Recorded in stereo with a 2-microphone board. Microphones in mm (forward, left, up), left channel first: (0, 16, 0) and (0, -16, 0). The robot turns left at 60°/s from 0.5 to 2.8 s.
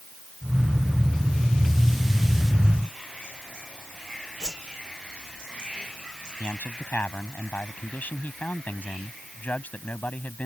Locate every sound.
4.4 s a whoosh: 25° left (ahead or behind)
6.4 s a man speaking: 65° left (ahead or behind)